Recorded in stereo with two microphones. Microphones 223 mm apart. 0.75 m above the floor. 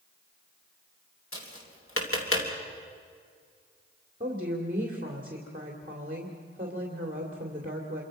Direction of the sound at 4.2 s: 40° right (ahead or behind).